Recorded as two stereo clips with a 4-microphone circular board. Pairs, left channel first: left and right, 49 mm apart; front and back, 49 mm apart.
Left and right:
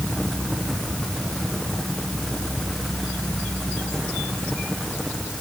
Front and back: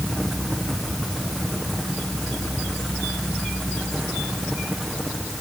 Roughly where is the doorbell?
No doorbell in this recording.